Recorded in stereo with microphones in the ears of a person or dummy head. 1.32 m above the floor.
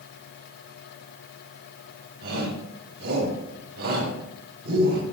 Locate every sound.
2.2 s a shout: 60° right (ahead or behind), 9.5 m